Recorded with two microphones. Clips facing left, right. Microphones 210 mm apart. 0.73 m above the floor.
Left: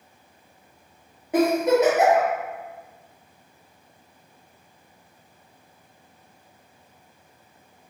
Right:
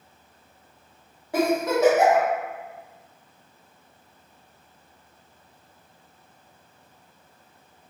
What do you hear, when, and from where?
1.3 s a giggle: 20° left (ahead or behind), 1.5 m